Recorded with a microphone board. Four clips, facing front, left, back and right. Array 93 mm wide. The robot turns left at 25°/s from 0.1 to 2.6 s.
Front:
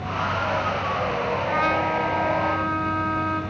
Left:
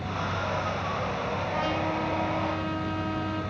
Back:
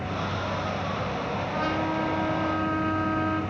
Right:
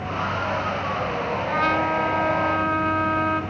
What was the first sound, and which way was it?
A trumpet, 50° right.